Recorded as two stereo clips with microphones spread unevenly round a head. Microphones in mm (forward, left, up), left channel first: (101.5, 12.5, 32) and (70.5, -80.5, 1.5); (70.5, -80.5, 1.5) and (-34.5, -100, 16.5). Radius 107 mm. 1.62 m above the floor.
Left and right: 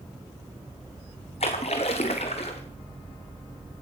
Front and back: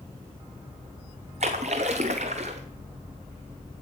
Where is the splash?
130° left, 0.9 m.